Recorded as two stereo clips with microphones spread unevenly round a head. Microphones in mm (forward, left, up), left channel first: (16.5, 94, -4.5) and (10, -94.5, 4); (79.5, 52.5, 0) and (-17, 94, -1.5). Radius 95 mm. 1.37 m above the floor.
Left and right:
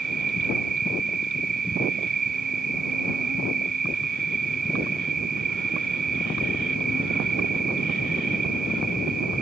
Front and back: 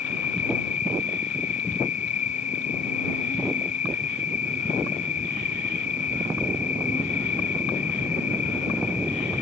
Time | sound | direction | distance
0.0 | an insect | 45° right | ?